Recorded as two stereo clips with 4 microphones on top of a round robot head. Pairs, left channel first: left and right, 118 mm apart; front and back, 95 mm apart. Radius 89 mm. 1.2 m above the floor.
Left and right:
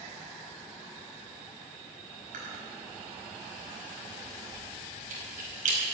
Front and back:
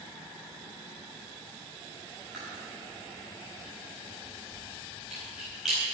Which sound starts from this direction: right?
Chewing, at 2.3 s.